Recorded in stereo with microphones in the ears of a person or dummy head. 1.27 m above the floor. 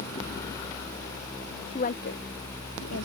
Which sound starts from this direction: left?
A woman speaking, at 1.7 s.